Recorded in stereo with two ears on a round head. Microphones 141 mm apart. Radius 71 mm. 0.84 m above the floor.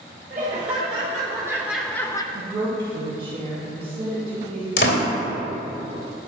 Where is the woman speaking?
40° right (ahead or behind), 3.5 m.